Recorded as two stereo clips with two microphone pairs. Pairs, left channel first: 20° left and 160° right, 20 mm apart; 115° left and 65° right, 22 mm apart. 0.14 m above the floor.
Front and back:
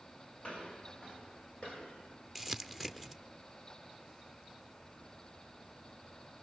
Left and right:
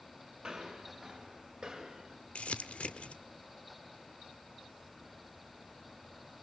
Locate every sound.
0.4 s footsteps: 15° right, 6 m
2.4 s crumpling: 105° left, 0.9 m